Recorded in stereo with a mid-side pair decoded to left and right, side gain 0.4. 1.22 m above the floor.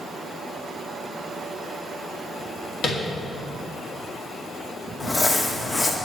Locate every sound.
2.8 s tapping: 60° left, 2.5 m
5.0 s crumpling: 35° left, 1.6 m